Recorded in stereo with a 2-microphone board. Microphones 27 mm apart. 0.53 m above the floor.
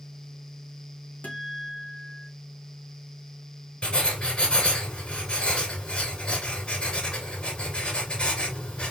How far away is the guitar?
About 1.6 m.